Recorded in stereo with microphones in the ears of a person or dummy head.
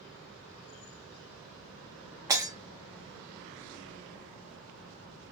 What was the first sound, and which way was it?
Breaking glass, 15° right (ahead or behind).